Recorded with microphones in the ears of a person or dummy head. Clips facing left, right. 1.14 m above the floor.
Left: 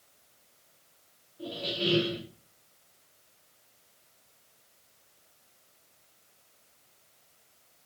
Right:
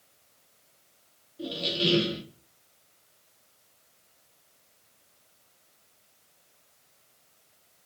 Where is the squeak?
55° right (ahead or behind), 1.7 m.